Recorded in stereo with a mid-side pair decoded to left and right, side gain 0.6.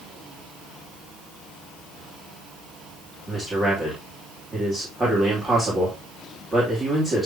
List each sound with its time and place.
3.3 s a man speaking: 20° right, 3 m